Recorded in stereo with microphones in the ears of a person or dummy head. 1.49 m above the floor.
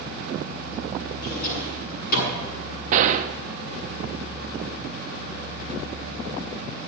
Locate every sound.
1.2 s a drawer: 55° left (ahead or behind), 7.5 m
2.9 s a gunshot: 40° right (ahead or behind), 0.8 m